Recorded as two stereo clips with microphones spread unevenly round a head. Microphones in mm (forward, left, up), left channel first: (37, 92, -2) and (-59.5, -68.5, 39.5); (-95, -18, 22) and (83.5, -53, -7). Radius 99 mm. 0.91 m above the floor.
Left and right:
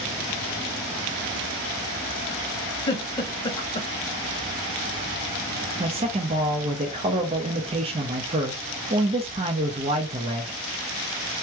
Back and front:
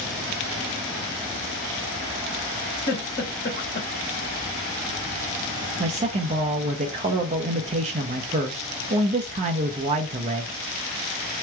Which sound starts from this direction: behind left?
A giggle, at 2.9 s.